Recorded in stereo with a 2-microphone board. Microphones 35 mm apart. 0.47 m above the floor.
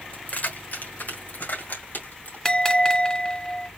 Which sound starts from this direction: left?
Keys jangling, at 0.1 s.